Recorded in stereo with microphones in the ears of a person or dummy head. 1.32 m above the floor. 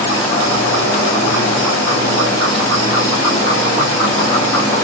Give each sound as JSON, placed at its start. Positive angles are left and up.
{"t": 0.0, "sound": "an insect", "side_deg": 20, "distance_m": 0.9}